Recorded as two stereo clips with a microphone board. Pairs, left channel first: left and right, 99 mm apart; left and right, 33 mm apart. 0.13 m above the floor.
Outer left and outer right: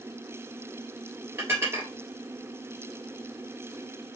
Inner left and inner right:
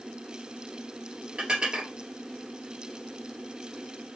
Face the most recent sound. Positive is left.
turn(degrees=-30)  # may be behind; listen again after turning